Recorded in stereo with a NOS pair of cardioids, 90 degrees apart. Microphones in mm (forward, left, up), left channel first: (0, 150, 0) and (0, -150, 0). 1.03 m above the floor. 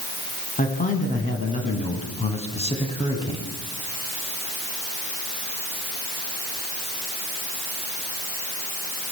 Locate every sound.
0.6 s a man speaking: 25° left, 9 m; by 3.5 s 15° left, 7.5 m